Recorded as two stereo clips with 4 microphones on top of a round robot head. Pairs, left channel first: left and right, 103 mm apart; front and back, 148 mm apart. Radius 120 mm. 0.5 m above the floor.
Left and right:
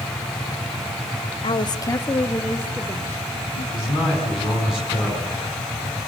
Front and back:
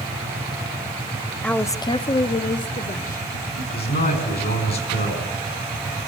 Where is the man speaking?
5° right, 6 m.